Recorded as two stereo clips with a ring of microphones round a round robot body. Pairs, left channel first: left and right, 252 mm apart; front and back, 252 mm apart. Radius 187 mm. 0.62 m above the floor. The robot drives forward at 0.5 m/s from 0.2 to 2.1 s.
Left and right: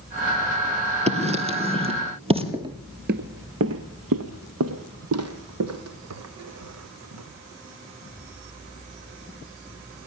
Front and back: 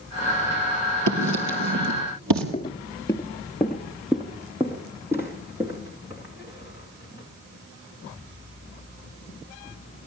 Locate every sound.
1.1 s writing: 155° right, 4 m
2.5 s footsteps: 30° right, 0.6 m; by 7.2 s 100° right, 2.5 m